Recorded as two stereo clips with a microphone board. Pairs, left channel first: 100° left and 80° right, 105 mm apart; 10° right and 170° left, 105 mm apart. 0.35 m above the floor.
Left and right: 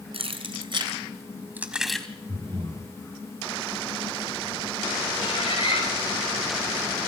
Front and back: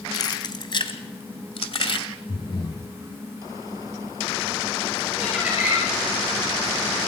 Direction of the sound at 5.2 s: 95° left.